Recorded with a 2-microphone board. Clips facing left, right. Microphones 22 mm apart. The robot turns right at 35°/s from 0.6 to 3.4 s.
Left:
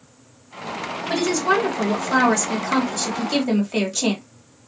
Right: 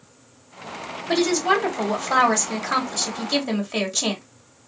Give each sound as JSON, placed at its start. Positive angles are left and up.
{"t": 1.1, "sound": "a woman speaking", "azimuth_deg": -95, "distance_m": 1.9}